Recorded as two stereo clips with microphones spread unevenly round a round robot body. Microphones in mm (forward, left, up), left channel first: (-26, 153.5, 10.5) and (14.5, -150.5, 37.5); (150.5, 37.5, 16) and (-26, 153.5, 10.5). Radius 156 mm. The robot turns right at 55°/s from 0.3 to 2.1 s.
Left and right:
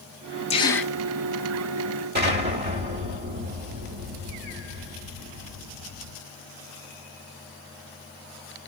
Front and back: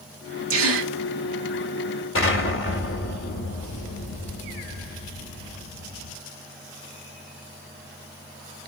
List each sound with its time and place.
0.5 s a gasp: 165° left, 1.5 m; by 0.9 s 170° right, 1.5 m
2.1 s an explosion: 20° right, 3 m